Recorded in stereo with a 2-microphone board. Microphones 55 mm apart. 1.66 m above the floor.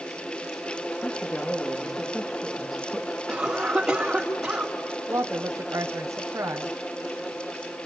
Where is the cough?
15° right (ahead or behind), 5 m.